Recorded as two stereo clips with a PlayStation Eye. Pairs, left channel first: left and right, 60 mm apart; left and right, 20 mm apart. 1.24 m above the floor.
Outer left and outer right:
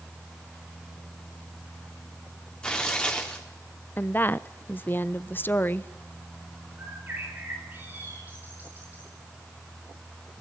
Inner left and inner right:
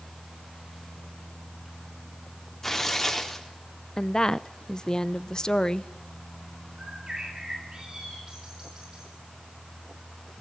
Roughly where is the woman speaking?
Left.